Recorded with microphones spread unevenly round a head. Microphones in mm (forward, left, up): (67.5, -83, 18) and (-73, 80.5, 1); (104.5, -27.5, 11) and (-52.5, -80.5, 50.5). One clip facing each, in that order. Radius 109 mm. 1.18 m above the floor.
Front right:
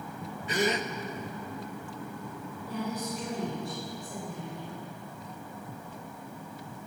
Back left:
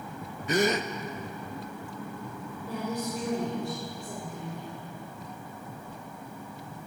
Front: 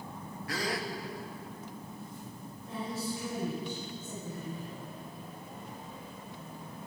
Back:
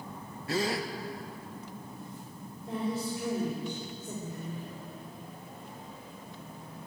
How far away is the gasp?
About 0.6 m.